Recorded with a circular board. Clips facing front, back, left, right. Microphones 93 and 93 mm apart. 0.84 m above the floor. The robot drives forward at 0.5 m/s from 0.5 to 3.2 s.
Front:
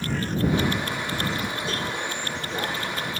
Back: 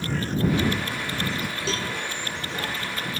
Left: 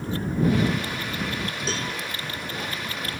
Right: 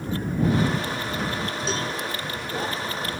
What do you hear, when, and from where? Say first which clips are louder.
1.7 s a cowbell: even, right 2 dB; straight behind, 3.5 m